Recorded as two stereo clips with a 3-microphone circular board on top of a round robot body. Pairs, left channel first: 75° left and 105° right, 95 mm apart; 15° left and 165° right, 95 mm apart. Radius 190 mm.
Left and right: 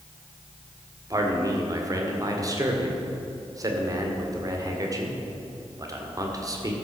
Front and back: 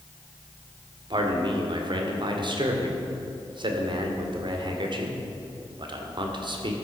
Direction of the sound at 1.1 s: 150° right.